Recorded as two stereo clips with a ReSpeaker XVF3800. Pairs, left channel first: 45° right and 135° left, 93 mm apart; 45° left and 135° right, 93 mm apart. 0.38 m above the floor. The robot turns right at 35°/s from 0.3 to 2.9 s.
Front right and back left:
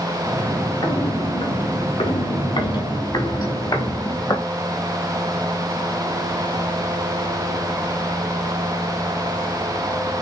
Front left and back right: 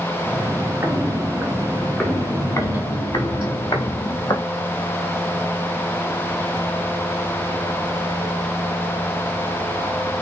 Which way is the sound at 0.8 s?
80° right.